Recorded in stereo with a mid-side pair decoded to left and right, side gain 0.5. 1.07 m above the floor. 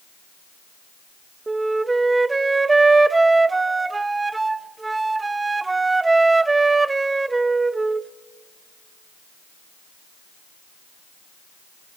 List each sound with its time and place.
1.5 s a flute: 20° right, 0.6 m